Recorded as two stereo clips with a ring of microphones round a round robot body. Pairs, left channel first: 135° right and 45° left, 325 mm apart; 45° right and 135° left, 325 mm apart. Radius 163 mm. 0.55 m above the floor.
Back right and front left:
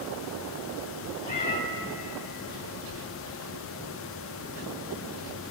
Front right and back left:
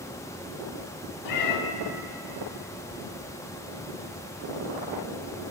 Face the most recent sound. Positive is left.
turn(degrees=-70)